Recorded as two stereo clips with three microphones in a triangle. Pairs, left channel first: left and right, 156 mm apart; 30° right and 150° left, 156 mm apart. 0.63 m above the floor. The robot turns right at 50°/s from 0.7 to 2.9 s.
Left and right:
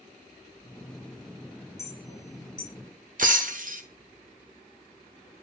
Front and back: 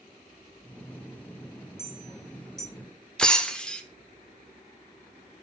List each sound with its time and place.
1.8 s a clink: 20° left, 2.5 m; by 2.7 s 65° left, 2.5 m
3.2 s breaking glass: 115° right, 0.8 m